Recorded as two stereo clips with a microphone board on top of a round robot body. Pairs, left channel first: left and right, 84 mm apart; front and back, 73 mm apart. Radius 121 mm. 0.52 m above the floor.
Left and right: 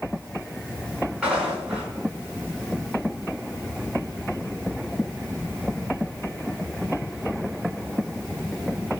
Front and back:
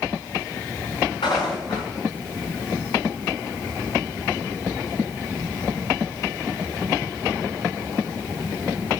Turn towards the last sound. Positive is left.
turn(degrees=-10)